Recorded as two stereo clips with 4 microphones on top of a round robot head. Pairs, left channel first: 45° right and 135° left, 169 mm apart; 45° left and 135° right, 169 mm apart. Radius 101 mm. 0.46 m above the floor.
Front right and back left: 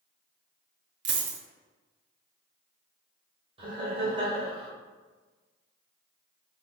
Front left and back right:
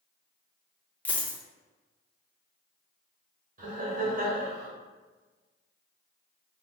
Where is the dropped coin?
130° left, 0.8 m.